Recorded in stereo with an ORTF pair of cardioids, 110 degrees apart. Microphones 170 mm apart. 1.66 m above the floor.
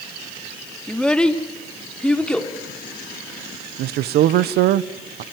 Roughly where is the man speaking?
Right.